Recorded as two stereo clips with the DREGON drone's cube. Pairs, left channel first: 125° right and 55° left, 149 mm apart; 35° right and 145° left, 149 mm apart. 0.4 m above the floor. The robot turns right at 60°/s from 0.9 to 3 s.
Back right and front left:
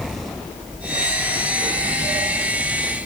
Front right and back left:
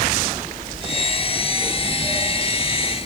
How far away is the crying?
I don't hear crying.